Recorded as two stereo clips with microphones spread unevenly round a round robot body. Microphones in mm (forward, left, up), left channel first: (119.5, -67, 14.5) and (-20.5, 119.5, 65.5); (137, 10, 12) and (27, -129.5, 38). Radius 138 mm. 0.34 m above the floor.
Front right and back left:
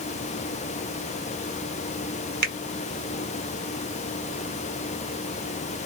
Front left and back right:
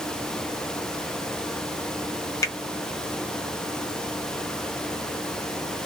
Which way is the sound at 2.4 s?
95° left.